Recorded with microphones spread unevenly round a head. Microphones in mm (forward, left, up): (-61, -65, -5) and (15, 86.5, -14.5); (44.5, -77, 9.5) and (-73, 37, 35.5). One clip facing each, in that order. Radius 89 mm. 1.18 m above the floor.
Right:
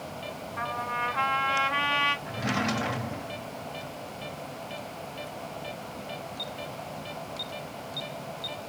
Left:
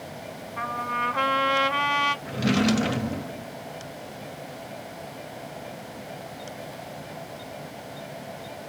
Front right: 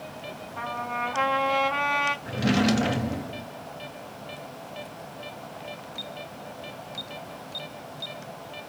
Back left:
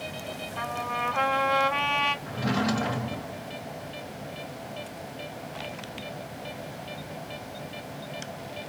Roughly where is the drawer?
Ahead.